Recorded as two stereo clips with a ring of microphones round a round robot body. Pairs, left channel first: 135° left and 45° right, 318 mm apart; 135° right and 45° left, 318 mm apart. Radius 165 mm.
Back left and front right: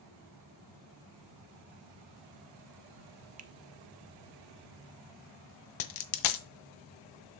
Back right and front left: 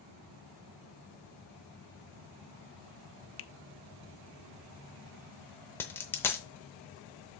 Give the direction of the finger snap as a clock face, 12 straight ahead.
4 o'clock.